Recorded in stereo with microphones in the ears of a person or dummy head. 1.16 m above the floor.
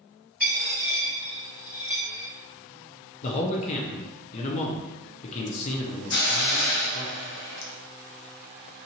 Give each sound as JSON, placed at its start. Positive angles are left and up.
{"t": 0.4, "sound": "a dropped coin", "side_deg": 10, "distance_m": 1.2}
{"t": 3.2, "sound": "a man speaking", "side_deg": 35, "distance_m": 0.5}
{"t": 6.1, "sound": "a hiss", "side_deg": 45, "distance_m": 0.5}